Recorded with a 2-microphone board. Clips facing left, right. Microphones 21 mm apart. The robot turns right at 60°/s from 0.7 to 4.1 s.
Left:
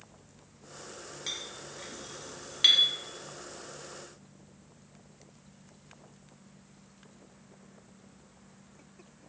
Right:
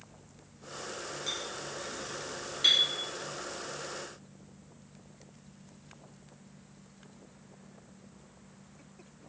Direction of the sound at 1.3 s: 20° left (ahead or behind).